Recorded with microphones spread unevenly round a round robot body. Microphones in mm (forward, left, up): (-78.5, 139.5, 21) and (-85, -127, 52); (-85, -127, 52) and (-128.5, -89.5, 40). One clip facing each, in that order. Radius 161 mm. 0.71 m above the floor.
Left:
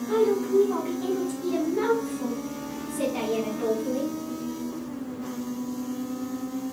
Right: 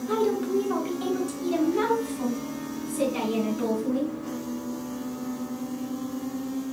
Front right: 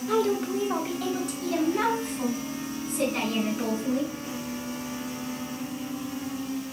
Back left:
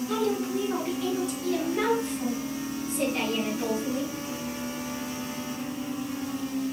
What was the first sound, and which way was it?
A woman speaking, 45° right.